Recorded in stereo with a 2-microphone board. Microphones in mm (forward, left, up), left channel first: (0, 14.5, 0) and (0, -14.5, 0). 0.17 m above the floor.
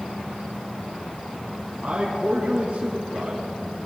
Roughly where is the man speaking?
Right.